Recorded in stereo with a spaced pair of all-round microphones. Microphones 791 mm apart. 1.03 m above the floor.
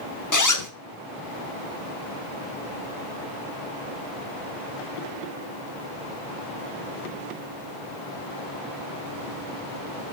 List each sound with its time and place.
0.3 s a zipper: 25° left (ahead or behind), 0.9 m